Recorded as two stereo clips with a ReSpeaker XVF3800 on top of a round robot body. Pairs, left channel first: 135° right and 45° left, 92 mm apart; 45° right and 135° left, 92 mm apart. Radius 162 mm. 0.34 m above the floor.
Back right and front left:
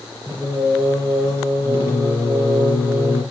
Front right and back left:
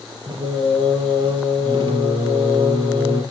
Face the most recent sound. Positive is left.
turn(degrees=110)